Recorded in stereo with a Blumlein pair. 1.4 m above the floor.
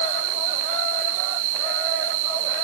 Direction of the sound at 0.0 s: 50° right.